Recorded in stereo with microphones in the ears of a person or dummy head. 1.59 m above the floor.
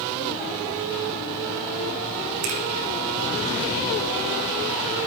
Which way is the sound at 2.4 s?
60° right (ahead or behind).